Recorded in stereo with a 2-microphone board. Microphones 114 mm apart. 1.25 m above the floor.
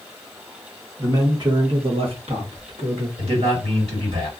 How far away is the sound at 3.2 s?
About 2.0 m.